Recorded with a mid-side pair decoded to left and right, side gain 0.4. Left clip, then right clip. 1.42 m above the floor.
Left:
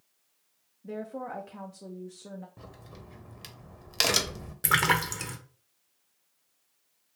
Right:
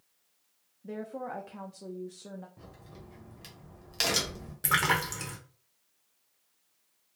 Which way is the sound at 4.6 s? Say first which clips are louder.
Left 2 dB; 30° left.